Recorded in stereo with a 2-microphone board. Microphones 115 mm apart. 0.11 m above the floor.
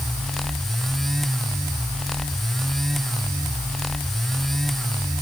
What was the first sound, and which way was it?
Only background noise.